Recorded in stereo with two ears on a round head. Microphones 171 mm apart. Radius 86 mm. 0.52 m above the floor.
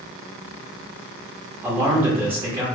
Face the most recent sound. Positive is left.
turn(degrees=-10)  # may be behind; listen again after turning